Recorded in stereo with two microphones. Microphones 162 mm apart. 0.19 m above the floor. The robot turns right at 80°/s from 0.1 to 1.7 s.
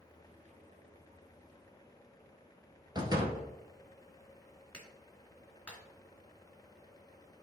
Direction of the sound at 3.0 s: 25° right (ahead or behind).